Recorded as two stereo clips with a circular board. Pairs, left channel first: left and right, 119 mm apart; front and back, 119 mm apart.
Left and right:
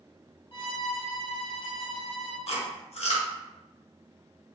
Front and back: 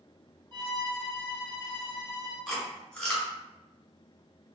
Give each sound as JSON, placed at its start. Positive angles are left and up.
{"t": 0.5, "sound": "a violin", "azimuth_deg": 135, "distance_m": 1.3}
{"t": 2.5, "sound": "chewing", "azimuth_deg": 80, "distance_m": 1.5}